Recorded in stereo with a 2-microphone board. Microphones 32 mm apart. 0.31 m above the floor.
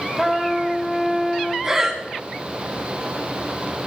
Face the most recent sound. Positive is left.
turn(degrees=-15)  # may be behind; listen again after turning